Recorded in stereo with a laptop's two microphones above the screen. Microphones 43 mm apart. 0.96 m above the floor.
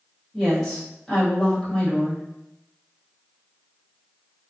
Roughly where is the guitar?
I don't hear a guitar.